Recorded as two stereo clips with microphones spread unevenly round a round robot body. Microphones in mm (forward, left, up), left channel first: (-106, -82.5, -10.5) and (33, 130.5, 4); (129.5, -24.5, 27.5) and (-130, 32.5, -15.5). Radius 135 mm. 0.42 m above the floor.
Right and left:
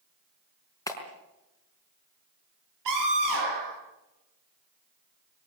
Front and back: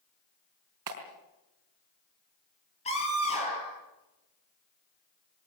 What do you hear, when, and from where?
0.9 s a clap: 160° left, 4.5 m
2.9 s a scream: 55° left, 10 m